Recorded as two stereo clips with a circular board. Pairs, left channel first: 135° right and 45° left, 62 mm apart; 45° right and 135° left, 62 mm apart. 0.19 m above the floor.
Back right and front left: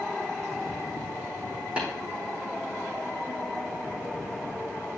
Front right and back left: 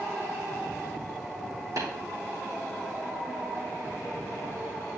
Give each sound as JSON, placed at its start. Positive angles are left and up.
{"t": 1.8, "sound": "tapping", "azimuth_deg": 115, "distance_m": 4.5}